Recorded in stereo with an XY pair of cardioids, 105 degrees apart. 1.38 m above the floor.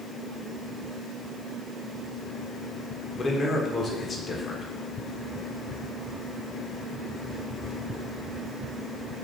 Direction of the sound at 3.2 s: 35° left.